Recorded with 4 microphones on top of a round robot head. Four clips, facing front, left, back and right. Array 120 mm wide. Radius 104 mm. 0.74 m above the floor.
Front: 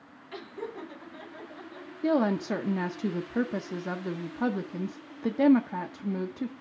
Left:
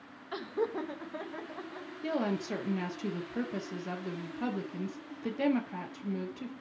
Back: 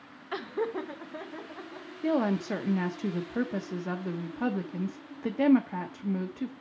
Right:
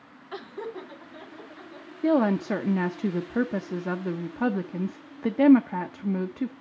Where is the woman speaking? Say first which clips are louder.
Right 10 dB, front 2 dB; 75° right, 0.7 m.